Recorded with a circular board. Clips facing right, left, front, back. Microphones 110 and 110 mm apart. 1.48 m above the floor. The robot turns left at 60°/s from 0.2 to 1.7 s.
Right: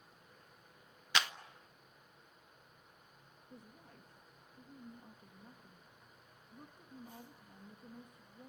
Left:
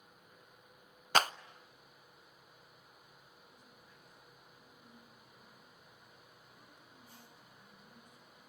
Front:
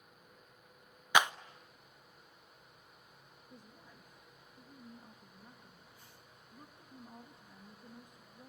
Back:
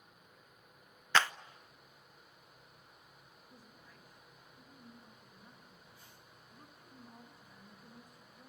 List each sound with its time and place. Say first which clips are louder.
1.1 s a clap: left 6 dB, front 2 dB; 70° left, 0.5 m; by 1.3 s 60° left, 0.5 m
3.5 s a woman speaking: right 4 dB, front 3 dB; 65° right, 2.5 m